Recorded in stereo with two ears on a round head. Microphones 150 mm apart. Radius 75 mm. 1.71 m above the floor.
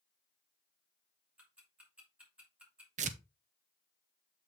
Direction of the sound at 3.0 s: 45° right (ahead or behind).